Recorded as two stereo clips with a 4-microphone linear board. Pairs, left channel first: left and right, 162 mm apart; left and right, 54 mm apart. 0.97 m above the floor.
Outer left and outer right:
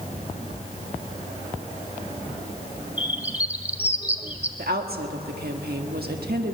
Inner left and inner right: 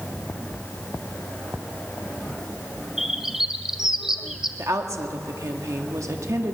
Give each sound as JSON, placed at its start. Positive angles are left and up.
{"t": 3.0, "sound": "a bird", "side_deg": -10, "distance_m": 1.2}
{"t": 4.6, "sound": "a woman speaking", "side_deg": -75, "distance_m": 1.7}